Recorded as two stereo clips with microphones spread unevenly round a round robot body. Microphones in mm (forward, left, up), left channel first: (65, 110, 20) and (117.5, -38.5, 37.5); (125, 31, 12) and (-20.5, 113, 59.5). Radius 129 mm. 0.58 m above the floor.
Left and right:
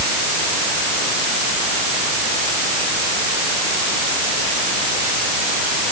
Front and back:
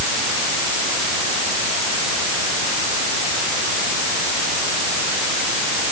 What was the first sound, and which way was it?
Only background noise.